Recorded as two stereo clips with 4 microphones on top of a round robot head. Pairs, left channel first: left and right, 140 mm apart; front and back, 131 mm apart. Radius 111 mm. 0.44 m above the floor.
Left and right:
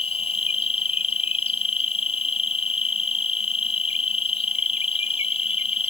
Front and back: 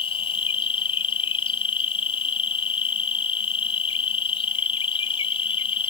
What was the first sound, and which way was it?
An insect, 45° left.